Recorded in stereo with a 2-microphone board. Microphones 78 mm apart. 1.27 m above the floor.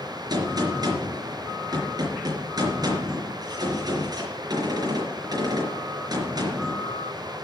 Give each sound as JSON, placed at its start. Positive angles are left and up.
{"t": 0.3, "sound": "a gunshot", "side_deg": -50, "distance_m": 4.0}